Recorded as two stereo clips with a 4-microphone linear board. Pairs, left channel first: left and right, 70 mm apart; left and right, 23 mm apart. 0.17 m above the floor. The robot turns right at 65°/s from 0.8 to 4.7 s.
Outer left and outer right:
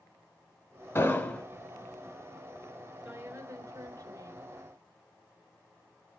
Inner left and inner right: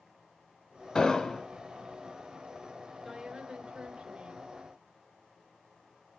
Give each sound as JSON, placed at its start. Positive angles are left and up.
{"t": 0.9, "sound": "an explosion", "azimuth_deg": 120, "distance_m": 1.6}
{"t": 3.0, "sound": "a woman speaking", "azimuth_deg": -160, "distance_m": 2.5}